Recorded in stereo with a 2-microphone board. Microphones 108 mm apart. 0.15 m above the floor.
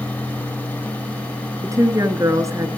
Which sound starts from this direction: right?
A woman speaking, at 1.6 s.